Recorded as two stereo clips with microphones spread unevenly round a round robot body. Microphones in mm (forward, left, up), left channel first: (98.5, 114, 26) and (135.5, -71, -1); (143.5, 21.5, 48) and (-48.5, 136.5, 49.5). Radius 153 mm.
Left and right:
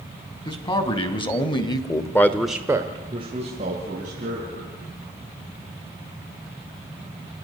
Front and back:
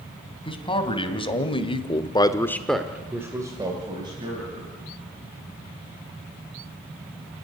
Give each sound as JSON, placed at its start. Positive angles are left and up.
{"t": 0.5, "sound": "a man speaking", "azimuth_deg": 35, "distance_m": 3.0}